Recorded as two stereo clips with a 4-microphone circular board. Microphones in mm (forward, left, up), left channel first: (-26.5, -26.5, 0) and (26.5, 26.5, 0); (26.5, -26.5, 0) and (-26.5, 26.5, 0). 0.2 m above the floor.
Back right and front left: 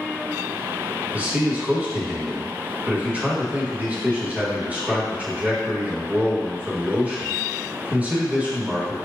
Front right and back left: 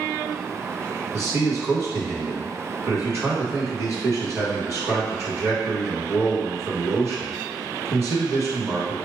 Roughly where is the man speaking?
Left.